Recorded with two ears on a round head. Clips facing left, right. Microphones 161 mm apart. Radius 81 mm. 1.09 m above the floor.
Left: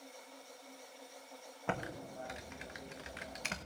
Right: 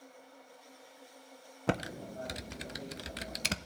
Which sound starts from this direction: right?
Typing on a keyboard, at 1.7 s.